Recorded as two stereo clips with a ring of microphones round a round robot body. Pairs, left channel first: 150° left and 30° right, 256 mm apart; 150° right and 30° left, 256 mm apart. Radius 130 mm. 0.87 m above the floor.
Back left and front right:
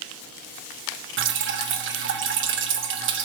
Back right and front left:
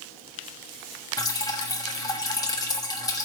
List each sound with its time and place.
1.2 s dripping: 75° right, 1.2 m